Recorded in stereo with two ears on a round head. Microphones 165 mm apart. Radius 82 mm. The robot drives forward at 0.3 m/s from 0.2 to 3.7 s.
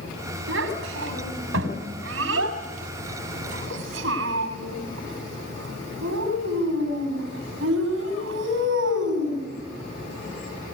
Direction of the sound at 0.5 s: 90° right.